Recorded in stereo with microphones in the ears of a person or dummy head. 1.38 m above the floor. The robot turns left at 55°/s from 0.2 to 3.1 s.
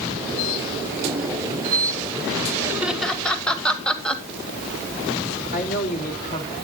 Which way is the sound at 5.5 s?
45° left (ahead or behind).